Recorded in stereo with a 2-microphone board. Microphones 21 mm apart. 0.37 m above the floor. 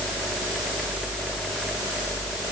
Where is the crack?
No crack in this recording.